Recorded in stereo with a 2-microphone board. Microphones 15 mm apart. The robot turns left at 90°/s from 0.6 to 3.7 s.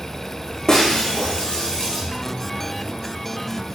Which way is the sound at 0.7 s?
145° left.